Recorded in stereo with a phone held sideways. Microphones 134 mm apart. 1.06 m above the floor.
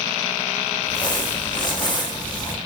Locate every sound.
0.8 s crumpling: 35° left (ahead or behind), 0.7 m